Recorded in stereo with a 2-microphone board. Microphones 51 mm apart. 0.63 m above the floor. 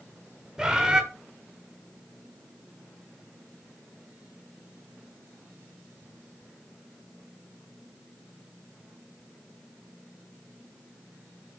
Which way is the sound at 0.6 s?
15° right (ahead or behind).